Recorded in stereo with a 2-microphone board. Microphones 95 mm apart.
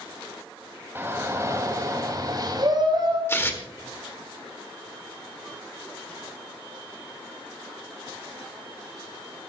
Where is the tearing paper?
25° left (ahead or behind), 1.8 m.